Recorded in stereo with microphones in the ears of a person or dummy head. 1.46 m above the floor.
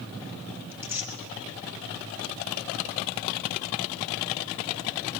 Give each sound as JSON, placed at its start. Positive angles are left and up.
{"t": 0.7, "sound": "tearing paper", "side_deg": -20, "distance_m": 3.0}